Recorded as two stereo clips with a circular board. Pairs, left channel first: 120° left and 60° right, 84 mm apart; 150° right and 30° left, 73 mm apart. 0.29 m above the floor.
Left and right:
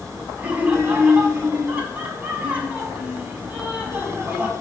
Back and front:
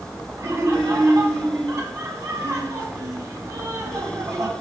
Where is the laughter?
5° left, 3 m.